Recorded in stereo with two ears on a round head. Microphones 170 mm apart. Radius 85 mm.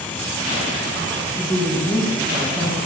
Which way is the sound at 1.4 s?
5° left (ahead or behind).